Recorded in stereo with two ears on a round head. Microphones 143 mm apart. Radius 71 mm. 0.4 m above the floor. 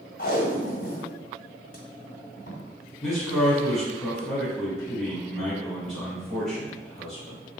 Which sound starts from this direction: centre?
A man speaking, at 3.0 s.